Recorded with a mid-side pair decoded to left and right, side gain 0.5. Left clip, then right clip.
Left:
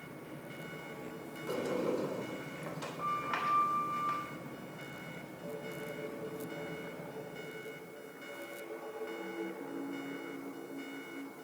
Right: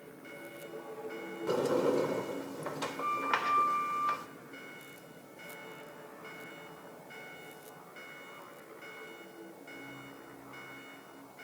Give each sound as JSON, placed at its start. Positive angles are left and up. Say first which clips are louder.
{"t": 1.5, "sound": "a sliding door", "louder": "right 5 dB", "azimuth_deg": -60, "distance_m": 2.5}